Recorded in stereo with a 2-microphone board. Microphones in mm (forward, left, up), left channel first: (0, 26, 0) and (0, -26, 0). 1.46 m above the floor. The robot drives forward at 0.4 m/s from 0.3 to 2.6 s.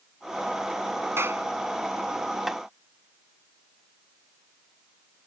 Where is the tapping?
5° right (ahead or behind).